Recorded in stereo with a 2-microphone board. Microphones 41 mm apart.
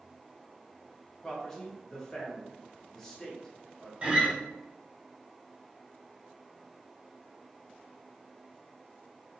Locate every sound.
1.2 s a man speaking: 15° left (ahead or behind), 0.9 m
4.0 s a guitar: 30° right (ahead or behind), 0.8 m